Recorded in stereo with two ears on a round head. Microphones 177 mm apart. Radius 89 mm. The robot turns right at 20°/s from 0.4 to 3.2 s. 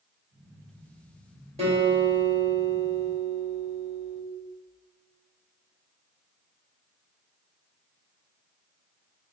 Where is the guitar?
35° right, 2.0 m; by 4.2 s 5° right, 2.0 m.